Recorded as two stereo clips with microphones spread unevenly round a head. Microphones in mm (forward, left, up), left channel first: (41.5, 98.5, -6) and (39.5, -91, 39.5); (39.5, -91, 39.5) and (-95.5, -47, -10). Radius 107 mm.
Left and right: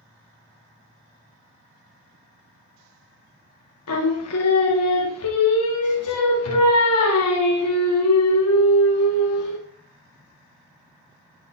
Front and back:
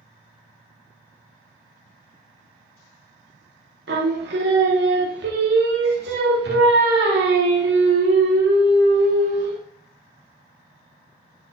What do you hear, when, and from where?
3.9 s singing: 115° left, 0.6 m